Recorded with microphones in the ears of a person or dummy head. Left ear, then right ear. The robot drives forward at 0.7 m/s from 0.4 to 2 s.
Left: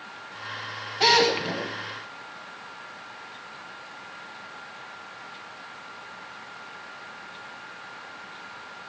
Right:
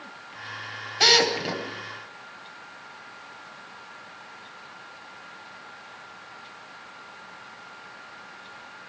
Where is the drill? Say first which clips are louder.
Right 1 dB; 45° right (ahead or behind), 9.5 m.